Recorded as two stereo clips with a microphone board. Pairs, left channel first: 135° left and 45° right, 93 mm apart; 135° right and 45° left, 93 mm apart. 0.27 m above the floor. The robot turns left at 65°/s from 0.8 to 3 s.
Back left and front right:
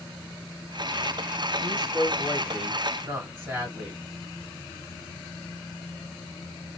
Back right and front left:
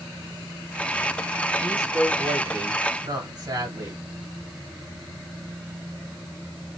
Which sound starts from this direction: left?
A woman speaking, at 1.6 s.